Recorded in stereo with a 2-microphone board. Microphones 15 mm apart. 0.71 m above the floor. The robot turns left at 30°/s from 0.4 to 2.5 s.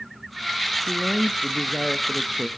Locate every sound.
0.9 s a woman speaking: 35° left, 0.6 m; by 2.5 s 15° right, 0.6 m